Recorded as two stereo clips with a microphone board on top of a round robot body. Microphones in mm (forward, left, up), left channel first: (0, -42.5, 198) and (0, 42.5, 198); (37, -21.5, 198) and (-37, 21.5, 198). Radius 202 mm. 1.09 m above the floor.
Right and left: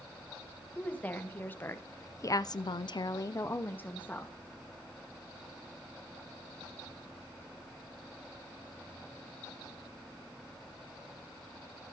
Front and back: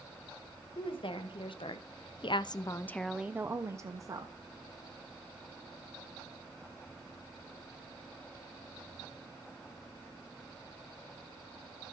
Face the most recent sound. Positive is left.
turn(degrees=-165)